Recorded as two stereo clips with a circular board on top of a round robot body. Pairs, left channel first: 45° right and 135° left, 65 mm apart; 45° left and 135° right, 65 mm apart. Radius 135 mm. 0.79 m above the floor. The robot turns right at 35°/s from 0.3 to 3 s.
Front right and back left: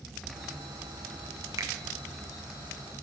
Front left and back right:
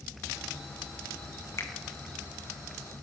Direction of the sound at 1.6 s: 95° left.